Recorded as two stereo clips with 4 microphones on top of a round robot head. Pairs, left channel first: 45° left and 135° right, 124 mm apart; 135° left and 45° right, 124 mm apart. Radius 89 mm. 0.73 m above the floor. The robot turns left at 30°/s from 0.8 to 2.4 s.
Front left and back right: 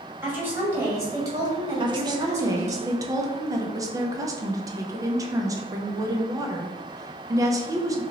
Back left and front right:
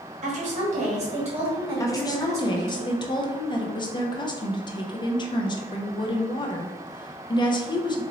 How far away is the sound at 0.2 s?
About 1.8 m.